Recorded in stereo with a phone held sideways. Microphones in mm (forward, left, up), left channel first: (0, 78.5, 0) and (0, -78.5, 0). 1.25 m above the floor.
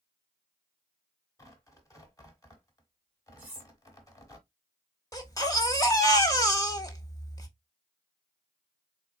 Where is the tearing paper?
20° left (ahead or behind), 1.1 m.